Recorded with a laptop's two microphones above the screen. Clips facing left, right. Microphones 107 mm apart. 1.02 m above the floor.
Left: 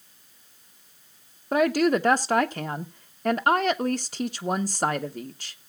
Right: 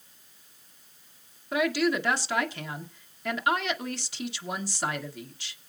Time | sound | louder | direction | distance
1.5 | a woman speaking | left 5 dB | 45° left (ahead or behind) | 0.9 m